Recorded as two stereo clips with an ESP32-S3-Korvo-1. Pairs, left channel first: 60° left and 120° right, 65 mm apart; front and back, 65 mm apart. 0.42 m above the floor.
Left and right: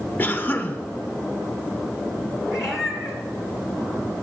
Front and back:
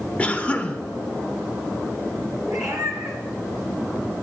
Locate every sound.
0.2 s a cough: 50° left, 0.9 m
2.5 s a cat meowing: 160° left, 2.5 m